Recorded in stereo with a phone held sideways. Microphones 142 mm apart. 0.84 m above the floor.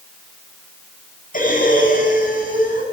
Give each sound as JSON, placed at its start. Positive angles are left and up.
{"t": 1.3, "sound": "breathing", "side_deg": 85, "distance_m": 7.5}